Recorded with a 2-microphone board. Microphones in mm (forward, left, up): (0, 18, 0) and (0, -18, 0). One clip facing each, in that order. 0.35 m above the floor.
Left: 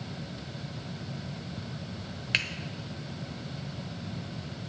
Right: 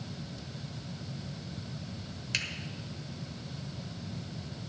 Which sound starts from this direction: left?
A finger snap, at 2.3 s.